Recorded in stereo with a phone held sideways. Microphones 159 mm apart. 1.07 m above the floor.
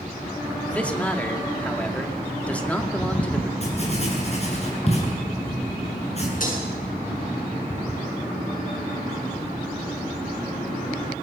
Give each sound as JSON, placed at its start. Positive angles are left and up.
{"t": 0.7, "sound": "a man speaking", "side_deg": 10, "distance_m": 2.0}
{"t": 3.6, "sound": "writing", "side_deg": 40, "distance_m": 8.0}
{"t": 6.4, "sound": "breaking glass", "side_deg": 55, "distance_m": 8.0}